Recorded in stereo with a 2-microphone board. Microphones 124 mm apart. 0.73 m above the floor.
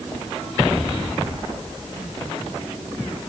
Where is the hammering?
No hammering in this recording.